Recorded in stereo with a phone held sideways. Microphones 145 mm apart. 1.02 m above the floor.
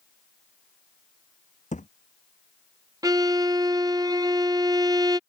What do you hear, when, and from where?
1.7 s a thud: 55° left (ahead or behind)
3.0 s a violin: 25° right (ahead or behind)